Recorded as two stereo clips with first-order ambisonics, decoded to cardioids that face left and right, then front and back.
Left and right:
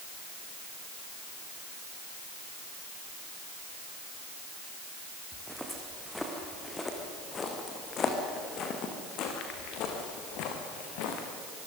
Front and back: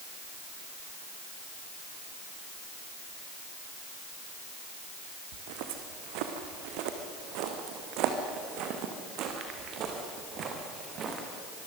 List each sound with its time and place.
5.3 s footsteps: 175° right, 3.5 m; by 11.3 s 115° left, 4 m